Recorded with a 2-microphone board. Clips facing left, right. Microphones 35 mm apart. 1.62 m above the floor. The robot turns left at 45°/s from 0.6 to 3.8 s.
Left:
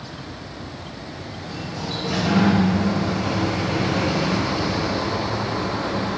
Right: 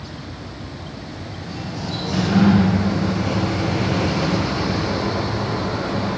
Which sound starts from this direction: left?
A sliding door, at 1.4 s.